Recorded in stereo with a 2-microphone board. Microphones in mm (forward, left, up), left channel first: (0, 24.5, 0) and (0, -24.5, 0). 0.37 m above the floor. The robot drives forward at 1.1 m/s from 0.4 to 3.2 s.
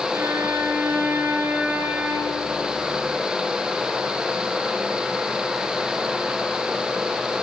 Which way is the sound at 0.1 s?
65° right (ahead or behind).